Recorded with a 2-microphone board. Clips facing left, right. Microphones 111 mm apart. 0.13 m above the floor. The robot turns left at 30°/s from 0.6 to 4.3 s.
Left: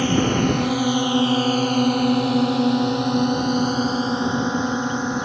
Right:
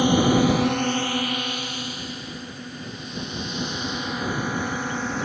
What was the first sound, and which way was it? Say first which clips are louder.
A drone: right 1 dB; 15° right (ahead or behind).